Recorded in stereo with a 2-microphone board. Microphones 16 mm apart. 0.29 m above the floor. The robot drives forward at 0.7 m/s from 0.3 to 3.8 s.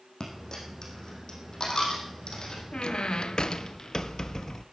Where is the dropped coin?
40° left (ahead or behind), 5 m; by 2.6 s 50° left (ahead or behind), 4 m.